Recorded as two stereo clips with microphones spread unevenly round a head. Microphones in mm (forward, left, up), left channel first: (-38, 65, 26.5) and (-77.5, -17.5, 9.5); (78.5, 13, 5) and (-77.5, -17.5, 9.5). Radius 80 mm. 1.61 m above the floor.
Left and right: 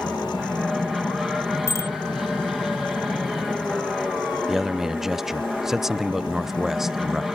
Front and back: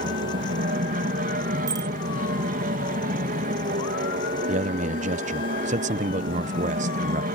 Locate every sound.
0.0 s an aircraft: 160° left
1.7 s a bicycle bell: 125° left
4.5 s a man speaking: 150° left